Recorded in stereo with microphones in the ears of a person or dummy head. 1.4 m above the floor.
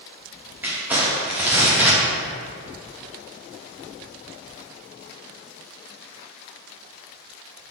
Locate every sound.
0.6 s crumpling: 5° right (ahead or behind), 1.4 m